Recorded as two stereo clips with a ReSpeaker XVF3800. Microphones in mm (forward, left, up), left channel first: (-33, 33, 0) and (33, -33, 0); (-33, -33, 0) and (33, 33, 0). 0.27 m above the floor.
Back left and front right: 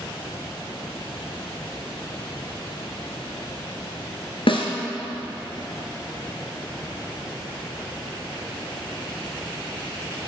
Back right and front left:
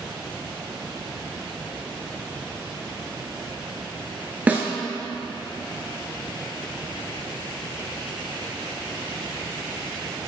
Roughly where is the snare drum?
Behind left.